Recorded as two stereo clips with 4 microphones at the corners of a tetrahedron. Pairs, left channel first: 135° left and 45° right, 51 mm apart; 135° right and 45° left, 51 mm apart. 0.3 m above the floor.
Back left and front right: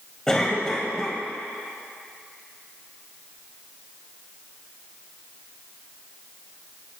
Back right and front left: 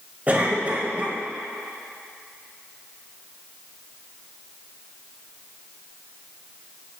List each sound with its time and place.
0.3 s a cough: 70° left, 1.7 m